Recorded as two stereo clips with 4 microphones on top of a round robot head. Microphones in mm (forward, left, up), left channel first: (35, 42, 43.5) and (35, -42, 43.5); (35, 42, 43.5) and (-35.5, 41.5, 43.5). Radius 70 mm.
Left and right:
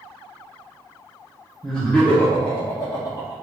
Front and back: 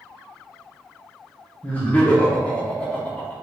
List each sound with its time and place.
1.6 s laughter: 10° left, 0.9 m; by 3.3 s 70° left, 1.4 m